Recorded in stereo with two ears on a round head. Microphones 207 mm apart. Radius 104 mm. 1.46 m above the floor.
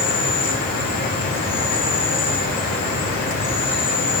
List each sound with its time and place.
0.0 s an insect: 40° left (ahead or behind), 2 m